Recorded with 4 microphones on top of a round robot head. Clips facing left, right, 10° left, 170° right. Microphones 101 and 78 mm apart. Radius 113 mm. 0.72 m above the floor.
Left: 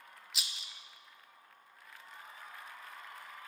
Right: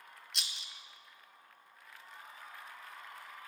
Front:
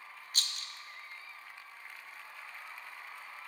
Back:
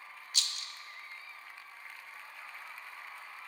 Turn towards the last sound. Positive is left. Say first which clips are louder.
# left 1 dB, front 1 dB
turn(degrees=0)